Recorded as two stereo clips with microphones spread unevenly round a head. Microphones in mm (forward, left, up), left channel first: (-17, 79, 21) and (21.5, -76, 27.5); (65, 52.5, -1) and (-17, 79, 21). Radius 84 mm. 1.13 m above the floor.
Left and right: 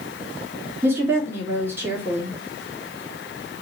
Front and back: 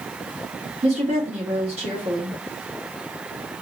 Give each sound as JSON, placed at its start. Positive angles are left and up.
{"t": 0.8, "sound": "a woman speaking", "azimuth_deg": -155, "distance_m": 1.6}